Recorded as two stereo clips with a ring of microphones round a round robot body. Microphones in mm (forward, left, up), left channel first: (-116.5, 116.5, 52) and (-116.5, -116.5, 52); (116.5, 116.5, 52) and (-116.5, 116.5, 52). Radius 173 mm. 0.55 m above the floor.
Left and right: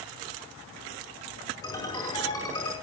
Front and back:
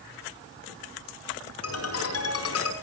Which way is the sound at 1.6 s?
10° left.